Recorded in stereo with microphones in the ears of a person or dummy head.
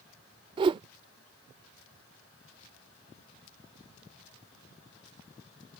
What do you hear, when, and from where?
0.6 s a whoosh: 25° right (ahead or behind)